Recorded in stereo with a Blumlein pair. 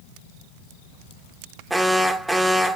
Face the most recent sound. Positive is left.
turn(degrees=-5)